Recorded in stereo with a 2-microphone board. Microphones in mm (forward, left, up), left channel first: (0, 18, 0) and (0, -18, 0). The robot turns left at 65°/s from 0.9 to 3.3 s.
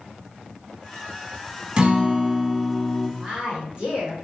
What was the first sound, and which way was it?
A guitar, 125° right.